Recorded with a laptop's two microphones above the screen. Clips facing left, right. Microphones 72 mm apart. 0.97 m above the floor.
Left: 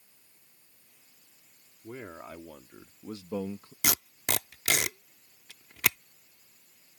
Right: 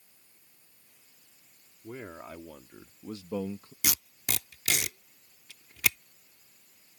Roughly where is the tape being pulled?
Left.